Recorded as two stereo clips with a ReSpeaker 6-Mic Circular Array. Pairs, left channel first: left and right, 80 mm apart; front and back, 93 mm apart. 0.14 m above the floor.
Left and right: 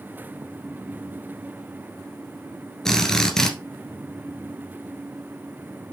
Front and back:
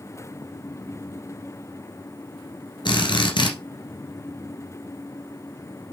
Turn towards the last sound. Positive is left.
turn(degrees=5)